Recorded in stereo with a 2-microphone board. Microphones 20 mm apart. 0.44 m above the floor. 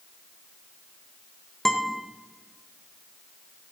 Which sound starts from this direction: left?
A guitar, at 1.6 s.